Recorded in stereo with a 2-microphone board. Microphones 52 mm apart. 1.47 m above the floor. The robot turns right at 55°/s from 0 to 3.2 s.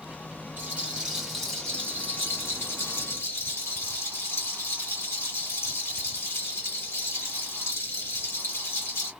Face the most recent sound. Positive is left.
turn(degrees=105)